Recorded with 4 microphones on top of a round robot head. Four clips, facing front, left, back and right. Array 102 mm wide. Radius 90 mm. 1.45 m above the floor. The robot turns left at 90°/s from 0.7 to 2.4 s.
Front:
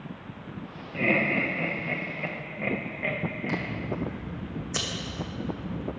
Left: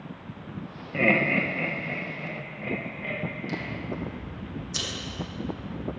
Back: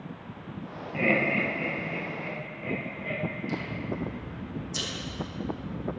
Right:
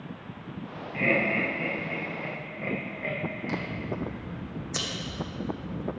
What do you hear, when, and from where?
0.9 s laughter: 110° left, 1.8 m; by 3.7 s 20° right, 1.8 m
3.5 s scissors: 35° right, 1.4 m